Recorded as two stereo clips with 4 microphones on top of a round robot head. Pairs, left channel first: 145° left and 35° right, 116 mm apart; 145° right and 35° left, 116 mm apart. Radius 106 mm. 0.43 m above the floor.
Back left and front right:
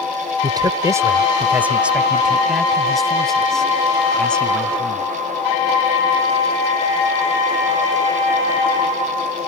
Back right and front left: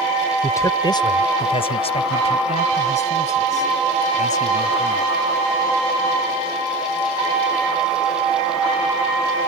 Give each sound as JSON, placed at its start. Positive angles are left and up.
{"t": 0.4, "sound": "a man speaking", "azimuth_deg": -80}